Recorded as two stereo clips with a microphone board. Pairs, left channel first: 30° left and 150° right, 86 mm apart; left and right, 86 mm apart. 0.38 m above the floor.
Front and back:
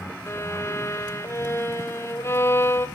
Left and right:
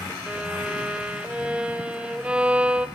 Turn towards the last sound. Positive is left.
turn(degrees=-15)